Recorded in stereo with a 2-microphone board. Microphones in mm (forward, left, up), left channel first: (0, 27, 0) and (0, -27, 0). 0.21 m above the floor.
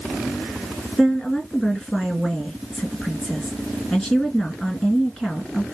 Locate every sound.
1.0 s a woman speaking: 10° left (ahead or behind), 2.5 m